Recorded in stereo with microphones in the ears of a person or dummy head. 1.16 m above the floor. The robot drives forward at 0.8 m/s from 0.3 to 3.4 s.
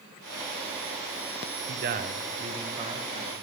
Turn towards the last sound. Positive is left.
turn(degrees=-20)  # may be behind; listen again after turning